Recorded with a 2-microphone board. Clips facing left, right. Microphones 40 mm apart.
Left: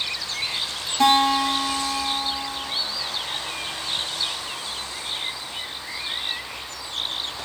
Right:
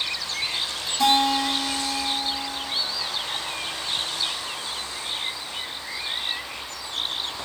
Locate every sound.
1.0 s a guitar: 40° left (ahead or behind), 1.2 m